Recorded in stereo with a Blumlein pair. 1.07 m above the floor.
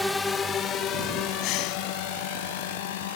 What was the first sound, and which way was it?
A drone, 5° left.